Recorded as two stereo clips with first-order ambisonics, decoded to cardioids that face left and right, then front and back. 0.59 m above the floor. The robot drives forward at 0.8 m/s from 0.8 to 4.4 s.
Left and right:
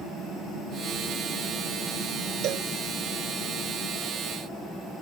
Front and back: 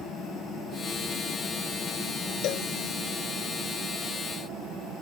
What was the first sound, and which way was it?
A cowbell, 45° right.